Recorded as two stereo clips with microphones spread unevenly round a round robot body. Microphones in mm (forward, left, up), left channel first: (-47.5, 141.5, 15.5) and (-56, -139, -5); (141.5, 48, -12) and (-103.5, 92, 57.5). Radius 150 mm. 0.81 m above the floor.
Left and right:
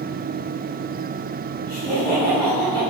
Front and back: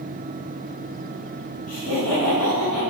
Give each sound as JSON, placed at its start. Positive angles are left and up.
{"t": 1.7, "sound": "laughter", "azimuth_deg": 5, "distance_m": 3.5}